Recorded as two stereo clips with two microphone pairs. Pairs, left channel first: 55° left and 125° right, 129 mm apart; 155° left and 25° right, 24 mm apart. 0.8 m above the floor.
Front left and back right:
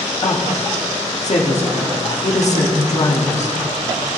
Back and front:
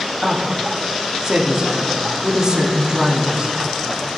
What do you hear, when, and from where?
0.2 s a woman speaking: 35° left, 1.5 m